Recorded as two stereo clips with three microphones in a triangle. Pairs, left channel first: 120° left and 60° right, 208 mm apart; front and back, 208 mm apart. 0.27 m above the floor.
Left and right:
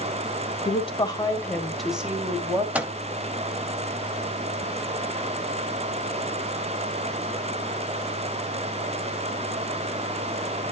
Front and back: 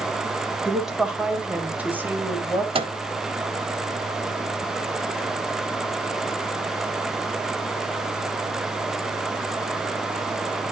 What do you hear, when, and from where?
0.7 s a woman speaking: 90° left, 1.3 m; by 2.6 s 110° right, 1.3 m
2.8 s a microwave: 140° right, 0.8 m